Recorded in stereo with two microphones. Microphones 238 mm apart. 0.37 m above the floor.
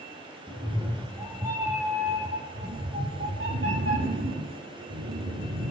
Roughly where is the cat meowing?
Centre.